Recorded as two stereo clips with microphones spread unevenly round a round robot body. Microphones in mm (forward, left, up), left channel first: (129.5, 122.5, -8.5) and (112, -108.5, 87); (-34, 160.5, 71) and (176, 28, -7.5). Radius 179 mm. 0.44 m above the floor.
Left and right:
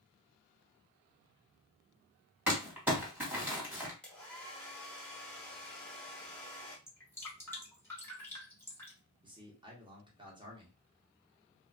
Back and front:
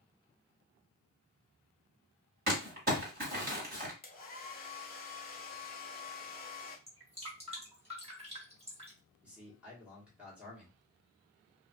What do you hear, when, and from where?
2.5 s crumpling: straight ahead, 1.9 m
4.0 s a hair dryer: 95° left, 0.9 m
6.9 s dripping: 20° left, 1.6 m
9.2 s a man speaking: 5° left, 1.3 m